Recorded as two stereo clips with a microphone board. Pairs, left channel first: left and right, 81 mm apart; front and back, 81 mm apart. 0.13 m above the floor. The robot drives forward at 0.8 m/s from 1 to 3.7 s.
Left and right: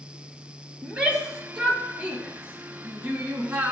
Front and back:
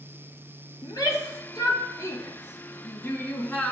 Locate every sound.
0.8 s a shout: 20° right, 3 m; by 3.7 s 60° right, 1.9 m